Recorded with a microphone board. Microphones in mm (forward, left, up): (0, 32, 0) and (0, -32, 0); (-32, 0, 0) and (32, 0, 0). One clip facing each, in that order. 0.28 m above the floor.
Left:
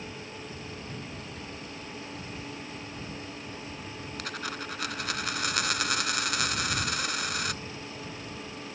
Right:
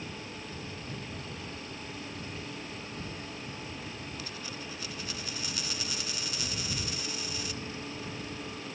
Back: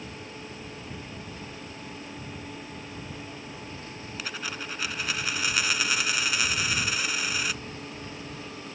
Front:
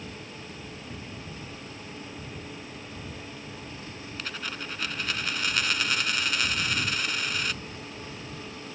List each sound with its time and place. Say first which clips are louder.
4.2 s a dropped coin: left 5 dB, back 1 dB; 95° left